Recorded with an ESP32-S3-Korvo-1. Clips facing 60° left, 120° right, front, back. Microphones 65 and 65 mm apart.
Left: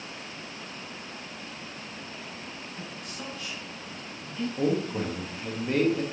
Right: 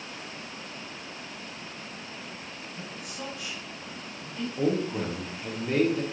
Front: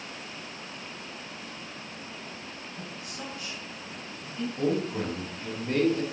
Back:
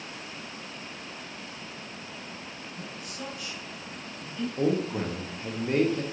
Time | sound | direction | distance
2.8 | a man speaking | 50° right | 1.4 m
4.6 | a man speaking | 155° left | 0.7 m